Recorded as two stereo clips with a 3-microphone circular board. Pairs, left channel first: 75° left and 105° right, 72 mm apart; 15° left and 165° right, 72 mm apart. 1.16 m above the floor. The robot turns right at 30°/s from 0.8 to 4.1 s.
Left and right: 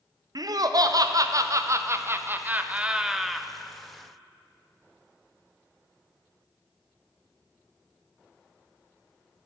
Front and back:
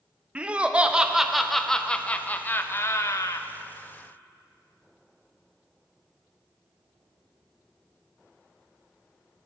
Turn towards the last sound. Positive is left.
turn(degrees=5)